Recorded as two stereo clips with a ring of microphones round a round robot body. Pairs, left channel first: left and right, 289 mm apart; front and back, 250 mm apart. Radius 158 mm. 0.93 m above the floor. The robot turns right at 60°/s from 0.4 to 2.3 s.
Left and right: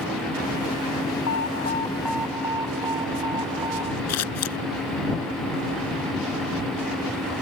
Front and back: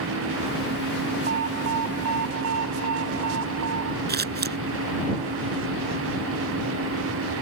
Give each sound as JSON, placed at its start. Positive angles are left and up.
{"t": 1.3, "sound": "an alarm", "azimuth_deg": 130}
{"t": 4.1, "sound": "scissors", "azimuth_deg": 130}